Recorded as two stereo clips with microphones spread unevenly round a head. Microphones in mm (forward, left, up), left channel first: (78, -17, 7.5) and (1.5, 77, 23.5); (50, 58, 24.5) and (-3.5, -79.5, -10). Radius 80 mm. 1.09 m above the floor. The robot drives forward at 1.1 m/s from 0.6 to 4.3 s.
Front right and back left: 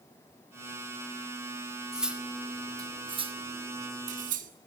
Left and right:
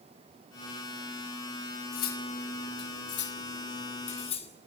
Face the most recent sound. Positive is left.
turn(degrees=125)